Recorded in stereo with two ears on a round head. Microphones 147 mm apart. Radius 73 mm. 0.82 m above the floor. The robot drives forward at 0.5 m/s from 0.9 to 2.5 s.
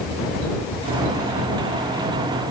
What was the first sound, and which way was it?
Only background noise.